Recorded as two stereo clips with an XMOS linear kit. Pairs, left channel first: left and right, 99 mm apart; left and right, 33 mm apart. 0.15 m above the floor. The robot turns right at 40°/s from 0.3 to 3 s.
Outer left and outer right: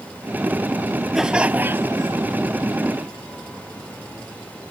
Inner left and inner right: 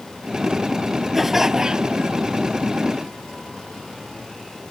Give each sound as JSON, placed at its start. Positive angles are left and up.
{"t": 1.1, "sound": "laughter", "azimuth_deg": -175}